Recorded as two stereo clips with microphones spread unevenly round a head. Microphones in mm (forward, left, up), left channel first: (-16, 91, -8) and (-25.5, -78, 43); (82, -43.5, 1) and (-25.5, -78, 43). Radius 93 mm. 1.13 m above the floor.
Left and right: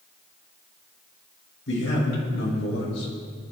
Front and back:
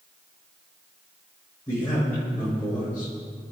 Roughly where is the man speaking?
Left.